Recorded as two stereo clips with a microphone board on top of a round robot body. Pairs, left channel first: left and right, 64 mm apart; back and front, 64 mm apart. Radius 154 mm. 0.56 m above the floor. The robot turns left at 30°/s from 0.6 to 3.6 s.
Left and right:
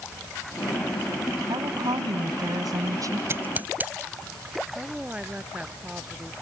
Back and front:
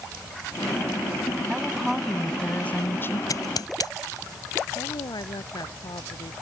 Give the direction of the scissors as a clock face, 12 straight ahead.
5 o'clock.